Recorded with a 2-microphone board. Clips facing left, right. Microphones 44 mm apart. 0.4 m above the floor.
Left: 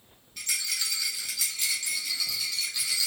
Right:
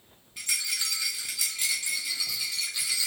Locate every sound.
0.4 s a rattle: 15° right (ahead or behind), 0.9 m